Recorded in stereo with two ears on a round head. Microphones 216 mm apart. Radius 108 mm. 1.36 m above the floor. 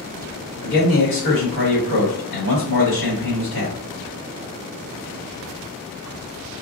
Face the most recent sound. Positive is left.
turn(degrees=50)  # may be behind; listen again after turning